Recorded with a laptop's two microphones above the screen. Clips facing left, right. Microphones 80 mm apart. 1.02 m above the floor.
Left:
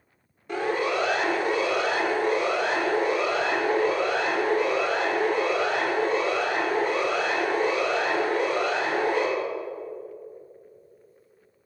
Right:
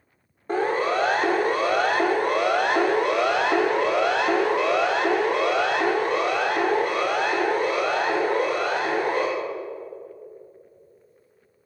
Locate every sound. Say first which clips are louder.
0.5 s a siren: right 3 dB; 40° right (ahead or behind), 2.5 m; by 9.3 s 45° right (ahead or behind), 3.5 m